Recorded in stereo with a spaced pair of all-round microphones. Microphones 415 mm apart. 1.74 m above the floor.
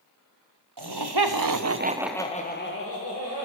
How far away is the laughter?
About 1.1 m.